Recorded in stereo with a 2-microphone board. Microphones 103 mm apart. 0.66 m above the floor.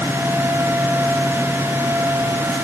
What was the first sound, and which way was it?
Only background noise.